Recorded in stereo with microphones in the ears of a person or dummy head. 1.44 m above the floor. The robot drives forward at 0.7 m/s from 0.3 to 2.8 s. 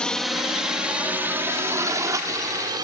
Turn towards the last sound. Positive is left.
turn(degrees=-20)  # may be behind; listen again after turning